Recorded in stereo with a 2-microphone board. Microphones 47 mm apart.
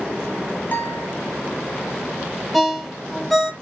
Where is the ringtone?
Centre (ahead or behind), 0.5 m.